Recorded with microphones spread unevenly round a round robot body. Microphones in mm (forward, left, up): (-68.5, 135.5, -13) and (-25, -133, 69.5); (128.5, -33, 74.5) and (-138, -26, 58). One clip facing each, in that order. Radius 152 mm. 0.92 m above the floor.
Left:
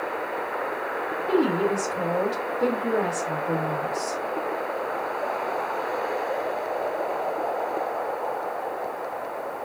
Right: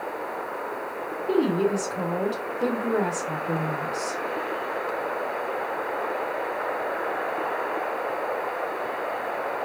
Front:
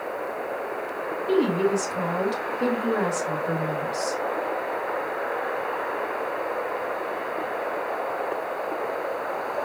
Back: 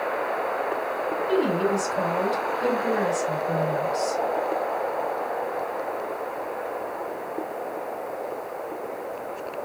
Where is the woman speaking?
15° left, 2 m.